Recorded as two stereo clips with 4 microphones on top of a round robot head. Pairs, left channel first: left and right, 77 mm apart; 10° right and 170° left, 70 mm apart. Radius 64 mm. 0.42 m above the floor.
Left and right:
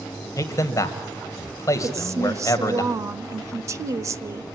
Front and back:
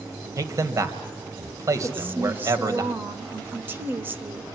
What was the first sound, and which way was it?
A man speaking, 135° left.